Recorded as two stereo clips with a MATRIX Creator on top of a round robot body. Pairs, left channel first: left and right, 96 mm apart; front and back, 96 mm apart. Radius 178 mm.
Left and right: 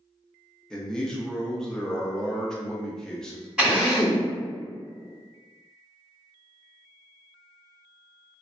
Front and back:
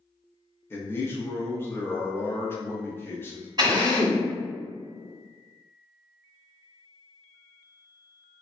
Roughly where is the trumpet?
No trumpet in this recording.